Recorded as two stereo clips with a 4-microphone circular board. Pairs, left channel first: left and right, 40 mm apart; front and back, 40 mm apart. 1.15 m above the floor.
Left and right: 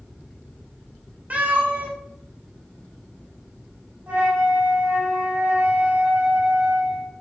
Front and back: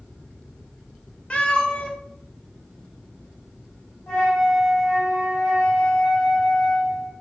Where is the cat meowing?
55° right, 0.5 m.